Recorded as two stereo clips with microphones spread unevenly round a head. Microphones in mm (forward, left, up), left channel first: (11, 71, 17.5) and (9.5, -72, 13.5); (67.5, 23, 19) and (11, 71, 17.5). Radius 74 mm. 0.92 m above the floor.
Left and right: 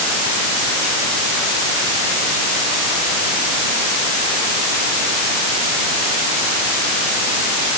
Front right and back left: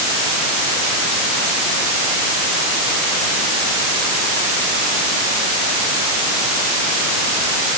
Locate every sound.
Only background noise.